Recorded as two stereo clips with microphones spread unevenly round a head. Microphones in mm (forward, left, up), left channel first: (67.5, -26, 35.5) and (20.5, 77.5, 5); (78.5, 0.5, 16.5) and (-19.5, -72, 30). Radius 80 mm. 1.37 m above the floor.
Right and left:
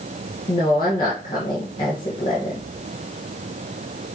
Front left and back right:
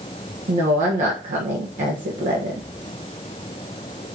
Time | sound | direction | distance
0.5 | a woman speaking | 130° right | 1.5 m